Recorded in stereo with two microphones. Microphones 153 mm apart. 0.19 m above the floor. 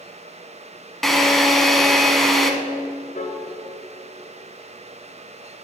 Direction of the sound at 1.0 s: Centre (ahead or behind).